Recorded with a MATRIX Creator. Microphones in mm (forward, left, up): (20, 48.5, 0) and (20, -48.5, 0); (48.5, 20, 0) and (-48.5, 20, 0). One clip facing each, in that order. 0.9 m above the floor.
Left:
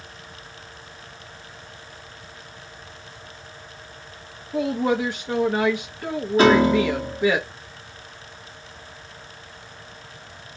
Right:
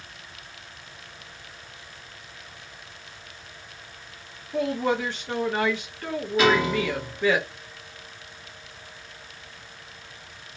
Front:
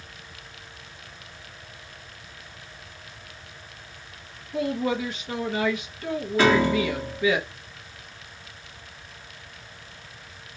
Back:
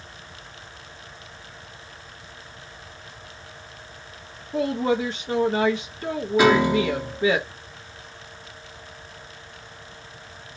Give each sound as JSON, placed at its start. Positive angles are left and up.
{"t": 4.5, "sound": "a woman speaking", "azimuth_deg": 155, "distance_m": 0.8}
{"t": 6.4, "sound": "a piano", "azimuth_deg": 115, "distance_m": 1.0}